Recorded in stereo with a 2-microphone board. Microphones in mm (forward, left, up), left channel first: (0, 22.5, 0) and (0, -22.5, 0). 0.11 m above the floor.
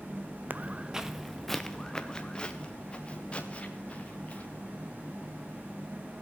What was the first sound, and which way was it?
Footsteps, 40° right (ahead or behind).